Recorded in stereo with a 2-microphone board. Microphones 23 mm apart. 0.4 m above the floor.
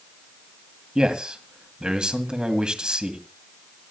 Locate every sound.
0.9 s a man speaking: 40° right (ahead or behind), 1.9 m